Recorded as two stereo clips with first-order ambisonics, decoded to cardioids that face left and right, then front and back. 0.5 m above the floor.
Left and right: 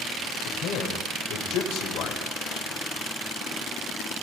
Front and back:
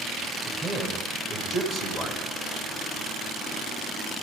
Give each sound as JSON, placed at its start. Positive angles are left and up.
{"t": 0.5, "sound": "a man speaking", "azimuth_deg": 75, "distance_m": 2.0}